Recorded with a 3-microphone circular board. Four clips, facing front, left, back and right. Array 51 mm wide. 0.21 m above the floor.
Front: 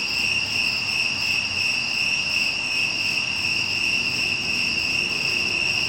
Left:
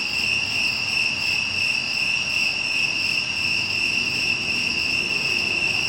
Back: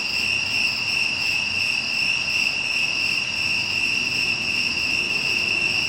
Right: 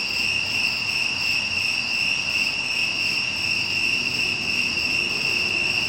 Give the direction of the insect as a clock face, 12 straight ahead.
6 o'clock.